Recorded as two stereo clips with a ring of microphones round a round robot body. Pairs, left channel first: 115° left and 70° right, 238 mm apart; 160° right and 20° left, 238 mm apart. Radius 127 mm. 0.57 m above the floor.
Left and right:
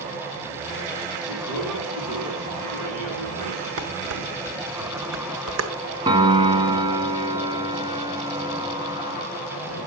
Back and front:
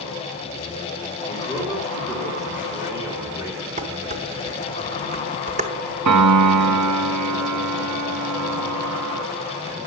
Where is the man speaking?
55° right, 6.5 m.